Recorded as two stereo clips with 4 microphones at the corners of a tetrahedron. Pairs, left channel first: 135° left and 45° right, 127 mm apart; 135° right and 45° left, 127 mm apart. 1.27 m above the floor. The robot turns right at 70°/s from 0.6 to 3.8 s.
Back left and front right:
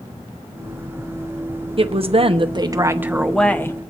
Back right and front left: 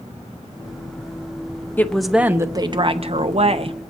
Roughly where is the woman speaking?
Ahead right.